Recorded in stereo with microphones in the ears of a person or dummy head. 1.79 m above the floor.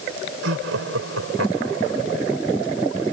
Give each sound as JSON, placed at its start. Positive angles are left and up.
{"t": 0.4, "sound": "laughter", "side_deg": -80}